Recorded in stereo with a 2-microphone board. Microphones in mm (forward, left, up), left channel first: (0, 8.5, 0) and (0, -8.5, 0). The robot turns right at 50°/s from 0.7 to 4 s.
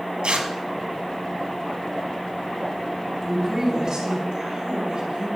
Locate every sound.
0.2 s tearing paper: 80° right, 1.4 m
3.2 s a woman speaking: straight behind, 4.5 m; by 5.3 s 140° right, 4.5 m